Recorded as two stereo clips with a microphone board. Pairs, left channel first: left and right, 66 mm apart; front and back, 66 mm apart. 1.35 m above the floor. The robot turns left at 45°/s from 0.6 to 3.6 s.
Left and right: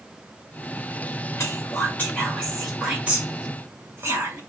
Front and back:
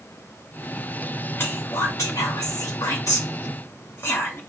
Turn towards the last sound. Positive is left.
turn(degrees=-45)